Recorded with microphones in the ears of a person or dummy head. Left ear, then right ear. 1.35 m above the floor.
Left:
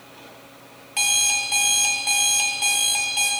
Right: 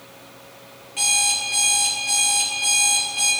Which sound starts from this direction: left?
An alarm clock, at 1.0 s.